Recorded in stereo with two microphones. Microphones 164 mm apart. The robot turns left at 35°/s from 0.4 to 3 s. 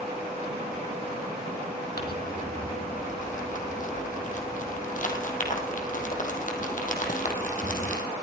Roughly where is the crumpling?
Left.